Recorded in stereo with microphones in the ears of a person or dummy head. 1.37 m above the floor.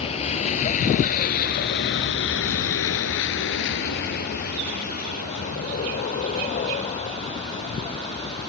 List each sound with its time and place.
0.0 s a vehicle: 35° left (ahead or behind); by 8.5 s 30° left (ahead or behind)